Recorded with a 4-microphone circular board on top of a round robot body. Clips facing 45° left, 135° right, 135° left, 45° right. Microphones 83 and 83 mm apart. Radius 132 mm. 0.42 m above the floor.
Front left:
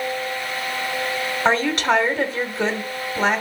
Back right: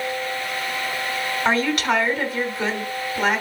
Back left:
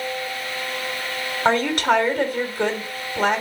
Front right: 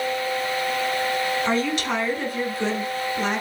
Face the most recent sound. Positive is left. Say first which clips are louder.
# front left 2 dB, back left 5 dB
turn(degrees=100)